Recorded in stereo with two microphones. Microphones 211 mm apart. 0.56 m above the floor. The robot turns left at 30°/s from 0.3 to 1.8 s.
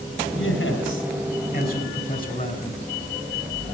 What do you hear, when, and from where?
0.3 s a man speaking: 90° left, 5.5 m; by 2.8 s 45° left, 5.5 m